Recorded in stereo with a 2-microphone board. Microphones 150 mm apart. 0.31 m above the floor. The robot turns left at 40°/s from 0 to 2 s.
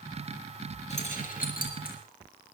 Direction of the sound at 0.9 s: 50° left (ahead or behind).